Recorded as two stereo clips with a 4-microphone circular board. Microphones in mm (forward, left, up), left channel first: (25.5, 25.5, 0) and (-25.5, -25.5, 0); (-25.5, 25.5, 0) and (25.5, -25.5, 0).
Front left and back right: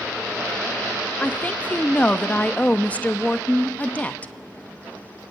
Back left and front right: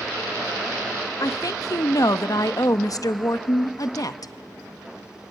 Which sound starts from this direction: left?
A woman speaking, at 1.2 s.